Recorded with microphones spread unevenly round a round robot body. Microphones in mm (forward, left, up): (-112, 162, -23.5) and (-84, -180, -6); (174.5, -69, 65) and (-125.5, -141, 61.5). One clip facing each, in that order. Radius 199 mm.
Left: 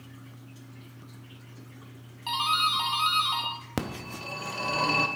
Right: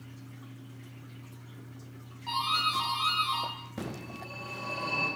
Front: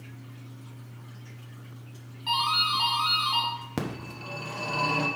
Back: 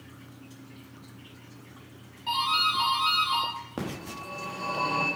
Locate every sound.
2.3 s a doorbell: 90° left, 1.8 m
3.8 s a phone ringing: 75° left, 0.8 m